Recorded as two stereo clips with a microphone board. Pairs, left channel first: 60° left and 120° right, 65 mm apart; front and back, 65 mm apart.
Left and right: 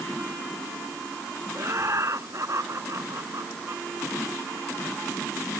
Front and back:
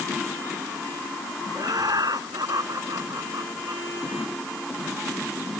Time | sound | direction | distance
1.6 | laughter | 165° right | ?